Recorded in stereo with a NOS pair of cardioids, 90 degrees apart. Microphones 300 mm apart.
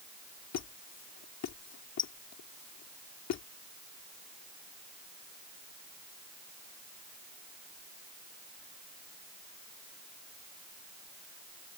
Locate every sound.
0.5 s a squeak: 60° left